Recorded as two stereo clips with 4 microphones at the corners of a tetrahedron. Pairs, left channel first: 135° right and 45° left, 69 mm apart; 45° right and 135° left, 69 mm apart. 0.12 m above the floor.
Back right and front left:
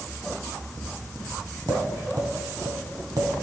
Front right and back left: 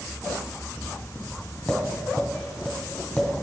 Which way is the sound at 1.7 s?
35° left.